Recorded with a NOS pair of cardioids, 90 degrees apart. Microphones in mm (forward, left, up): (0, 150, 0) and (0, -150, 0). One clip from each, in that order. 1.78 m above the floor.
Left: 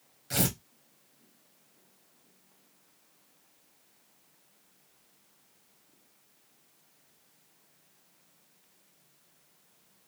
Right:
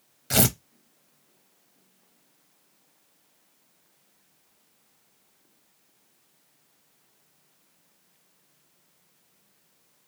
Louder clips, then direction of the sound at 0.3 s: Right 7 dB; 45° right.